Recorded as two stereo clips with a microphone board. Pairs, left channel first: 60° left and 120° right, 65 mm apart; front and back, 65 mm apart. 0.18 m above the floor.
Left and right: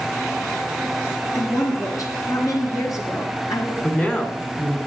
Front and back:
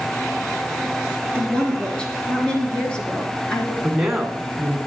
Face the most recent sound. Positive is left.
turn(degrees=95)